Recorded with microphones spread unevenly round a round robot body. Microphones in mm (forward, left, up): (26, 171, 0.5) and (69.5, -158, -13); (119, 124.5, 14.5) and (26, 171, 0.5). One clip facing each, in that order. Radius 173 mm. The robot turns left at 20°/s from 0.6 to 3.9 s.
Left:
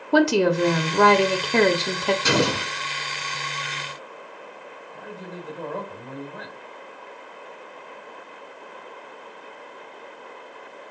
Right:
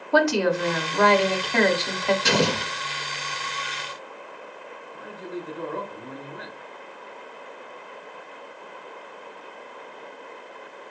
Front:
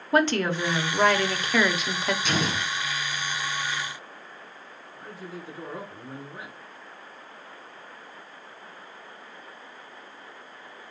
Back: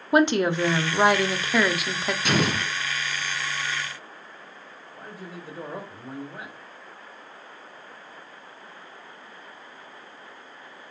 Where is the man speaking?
115° left, 2 m.